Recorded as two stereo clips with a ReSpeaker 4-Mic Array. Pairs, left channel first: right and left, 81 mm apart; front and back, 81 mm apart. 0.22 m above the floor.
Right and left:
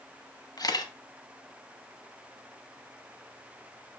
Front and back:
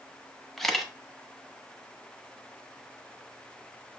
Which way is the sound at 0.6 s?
85° right.